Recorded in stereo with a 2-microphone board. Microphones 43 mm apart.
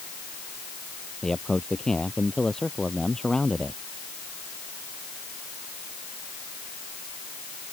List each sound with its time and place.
1.2 s a man speaking: 15° left (ahead or behind)